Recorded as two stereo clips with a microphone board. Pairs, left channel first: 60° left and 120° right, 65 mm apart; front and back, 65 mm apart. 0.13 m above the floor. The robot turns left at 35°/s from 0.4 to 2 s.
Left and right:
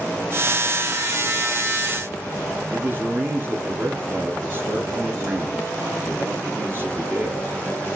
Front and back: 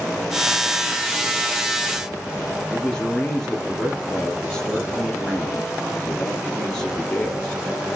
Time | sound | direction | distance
2.7 | a man speaking | 75° right | 2.5 m